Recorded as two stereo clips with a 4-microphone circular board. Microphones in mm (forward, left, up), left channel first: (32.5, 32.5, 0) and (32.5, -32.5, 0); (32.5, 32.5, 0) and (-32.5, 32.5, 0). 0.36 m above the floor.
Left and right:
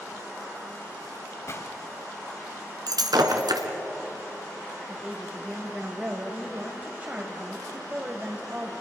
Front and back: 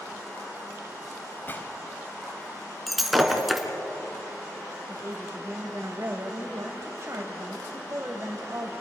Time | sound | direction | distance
1.5 | a gunshot | 55° left | 1.5 m
2.9 | breaking glass | 90° right | 1.9 m
4.9 | a woman speaking | 145° right | 1.6 m